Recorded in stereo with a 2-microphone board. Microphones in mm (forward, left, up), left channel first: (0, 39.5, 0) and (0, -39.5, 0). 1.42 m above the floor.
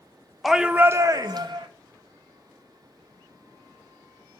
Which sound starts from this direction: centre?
A shout, at 0.4 s.